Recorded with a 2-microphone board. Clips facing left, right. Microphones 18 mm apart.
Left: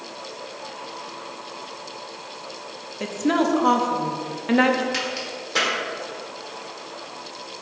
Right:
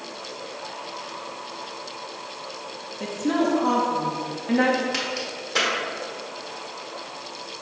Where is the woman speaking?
30° left (ahead or behind), 0.7 m.